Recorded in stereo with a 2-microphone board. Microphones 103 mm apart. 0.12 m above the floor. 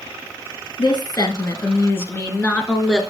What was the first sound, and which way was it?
A woman speaking, 45° left (ahead or behind).